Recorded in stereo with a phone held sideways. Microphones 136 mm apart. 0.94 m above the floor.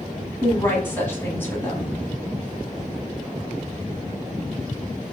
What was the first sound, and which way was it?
A woman speaking, 15° left (ahead or behind).